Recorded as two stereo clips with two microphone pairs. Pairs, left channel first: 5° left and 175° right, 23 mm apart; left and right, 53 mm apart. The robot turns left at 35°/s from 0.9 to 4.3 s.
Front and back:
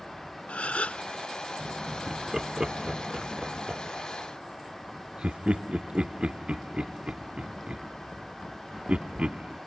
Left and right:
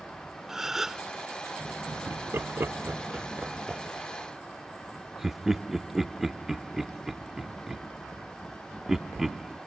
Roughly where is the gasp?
Ahead.